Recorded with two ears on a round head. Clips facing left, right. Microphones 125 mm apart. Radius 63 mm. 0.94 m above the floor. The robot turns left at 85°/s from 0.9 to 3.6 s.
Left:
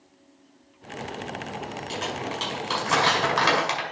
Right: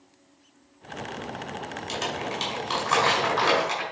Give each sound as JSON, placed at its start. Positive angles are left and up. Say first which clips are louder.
{"t": 1.9, "sound": "crumpling", "louder": "right 1 dB", "side_deg": -60, "distance_m": 5.0}